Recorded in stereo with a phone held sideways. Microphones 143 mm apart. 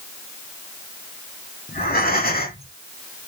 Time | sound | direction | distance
1.7 | breathing | 80° left | 2 m